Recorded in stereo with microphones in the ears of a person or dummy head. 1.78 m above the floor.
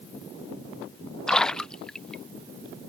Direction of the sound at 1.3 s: 5° left (ahead or behind).